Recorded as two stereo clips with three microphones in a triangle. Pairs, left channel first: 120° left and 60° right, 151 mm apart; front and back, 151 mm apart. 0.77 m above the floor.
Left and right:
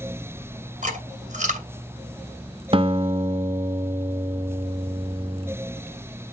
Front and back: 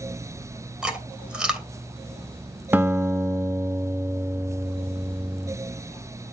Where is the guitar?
105° right, 0.7 m.